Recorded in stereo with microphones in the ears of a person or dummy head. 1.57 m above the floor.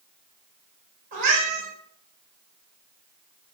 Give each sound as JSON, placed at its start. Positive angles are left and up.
{"t": 1.1, "sound": "a cat meowing", "side_deg": -35, "distance_m": 1.1}